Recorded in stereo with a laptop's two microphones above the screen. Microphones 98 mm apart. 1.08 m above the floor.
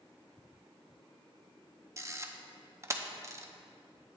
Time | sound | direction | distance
2.0 | a camera shutter | 30° right (ahead or behind) | 0.6 m